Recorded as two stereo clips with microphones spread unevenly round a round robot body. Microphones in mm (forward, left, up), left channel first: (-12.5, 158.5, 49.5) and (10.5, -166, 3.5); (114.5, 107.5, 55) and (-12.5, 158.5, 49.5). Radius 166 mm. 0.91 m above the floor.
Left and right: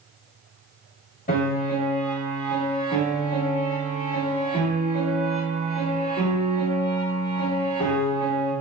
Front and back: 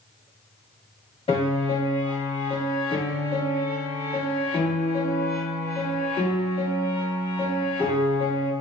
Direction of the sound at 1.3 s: 25° left.